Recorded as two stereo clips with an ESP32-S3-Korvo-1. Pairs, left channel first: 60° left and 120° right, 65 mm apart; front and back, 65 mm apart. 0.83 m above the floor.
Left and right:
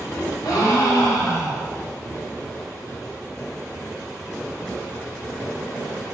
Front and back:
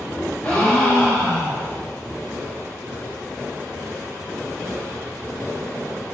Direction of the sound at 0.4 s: 70° left.